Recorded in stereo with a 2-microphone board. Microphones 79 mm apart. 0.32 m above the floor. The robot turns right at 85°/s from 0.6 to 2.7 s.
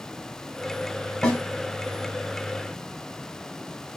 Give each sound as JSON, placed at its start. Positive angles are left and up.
{"t": 1.2, "sound": "a snare drum", "side_deg": 10, "distance_m": 1.1}